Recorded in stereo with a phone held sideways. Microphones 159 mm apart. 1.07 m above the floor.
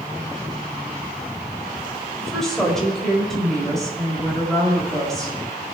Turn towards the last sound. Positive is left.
turn(degrees=0)  # may be behind; listen again after turning